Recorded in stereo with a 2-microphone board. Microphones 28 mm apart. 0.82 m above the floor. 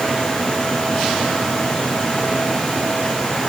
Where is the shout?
I don't hear a shout.